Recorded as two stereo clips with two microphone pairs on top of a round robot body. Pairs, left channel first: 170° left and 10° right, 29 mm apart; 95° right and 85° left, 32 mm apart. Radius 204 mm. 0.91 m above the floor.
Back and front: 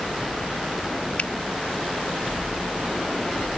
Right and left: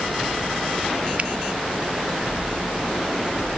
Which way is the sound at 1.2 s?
135° left.